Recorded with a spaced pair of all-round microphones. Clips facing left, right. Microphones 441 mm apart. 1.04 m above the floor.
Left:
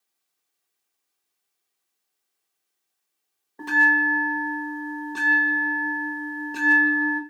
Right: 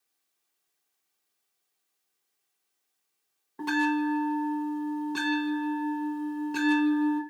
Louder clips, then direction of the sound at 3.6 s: Right 2 dB; 20° right (ahead or behind).